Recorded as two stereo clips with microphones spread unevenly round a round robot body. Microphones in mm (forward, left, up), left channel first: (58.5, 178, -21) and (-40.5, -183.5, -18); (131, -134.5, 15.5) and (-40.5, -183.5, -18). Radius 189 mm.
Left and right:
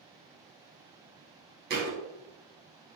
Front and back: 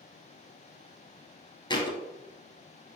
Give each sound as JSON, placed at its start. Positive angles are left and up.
{"t": 1.7, "sound": "a thud", "azimuth_deg": -40, "distance_m": 1.4}